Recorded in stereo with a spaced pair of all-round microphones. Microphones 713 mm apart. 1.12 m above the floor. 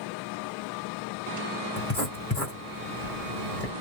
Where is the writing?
20° left (ahead or behind), 1.5 m.